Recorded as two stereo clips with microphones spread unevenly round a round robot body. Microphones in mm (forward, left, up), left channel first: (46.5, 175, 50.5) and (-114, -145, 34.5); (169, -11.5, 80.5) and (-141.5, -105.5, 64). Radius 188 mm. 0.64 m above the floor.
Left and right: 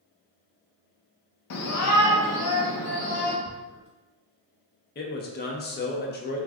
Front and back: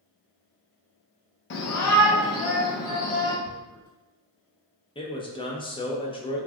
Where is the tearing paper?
170° left, 0.9 m.